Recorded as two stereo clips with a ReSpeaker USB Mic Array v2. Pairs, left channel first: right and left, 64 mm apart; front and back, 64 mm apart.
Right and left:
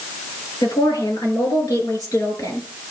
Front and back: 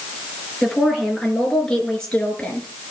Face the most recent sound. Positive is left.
turn(degrees=-70)